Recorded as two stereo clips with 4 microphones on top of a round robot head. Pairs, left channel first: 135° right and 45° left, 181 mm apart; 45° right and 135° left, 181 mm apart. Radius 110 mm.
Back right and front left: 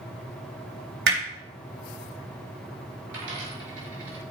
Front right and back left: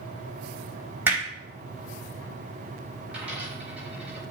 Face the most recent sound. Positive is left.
turn(degrees=50)